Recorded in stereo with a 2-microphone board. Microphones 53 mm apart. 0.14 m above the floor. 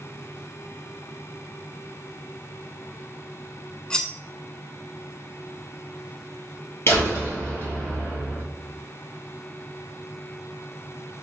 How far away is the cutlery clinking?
About 0.6 m.